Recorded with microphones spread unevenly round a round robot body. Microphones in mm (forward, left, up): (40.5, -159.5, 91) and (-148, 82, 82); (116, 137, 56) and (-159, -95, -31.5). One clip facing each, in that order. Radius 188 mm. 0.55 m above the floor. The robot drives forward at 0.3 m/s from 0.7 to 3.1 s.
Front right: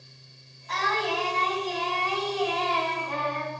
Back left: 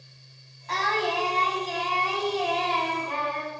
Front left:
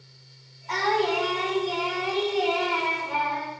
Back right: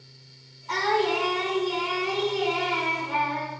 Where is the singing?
150° left, 4 m; by 3.5 s 155° left, 4.5 m.